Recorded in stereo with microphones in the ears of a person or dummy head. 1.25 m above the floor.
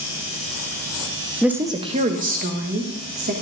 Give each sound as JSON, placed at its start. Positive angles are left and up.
{"t": 1.4, "sound": "a woman speaking", "side_deg": -5, "distance_m": 0.7}